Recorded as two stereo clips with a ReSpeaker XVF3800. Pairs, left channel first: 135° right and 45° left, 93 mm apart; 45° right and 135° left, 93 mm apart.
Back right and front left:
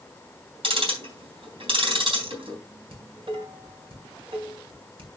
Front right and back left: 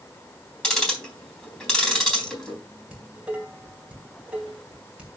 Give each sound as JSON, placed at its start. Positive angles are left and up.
{"t": 0.6, "sound": "ticking", "azimuth_deg": 35, "distance_m": 3.5}
{"t": 2.9, "sound": "dishes clattering", "azimuth_deg": 55, "distance_m": 3.0}